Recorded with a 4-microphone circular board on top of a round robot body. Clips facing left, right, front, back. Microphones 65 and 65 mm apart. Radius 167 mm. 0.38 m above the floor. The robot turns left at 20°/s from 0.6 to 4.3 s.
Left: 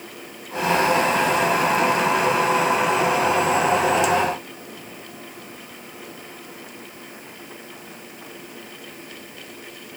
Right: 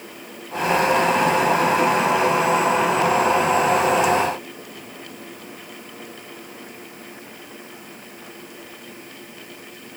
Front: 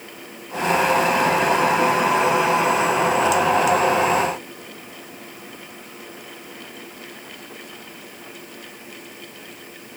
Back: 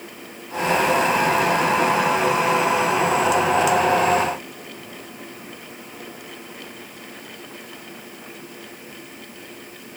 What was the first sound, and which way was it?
Only background noise.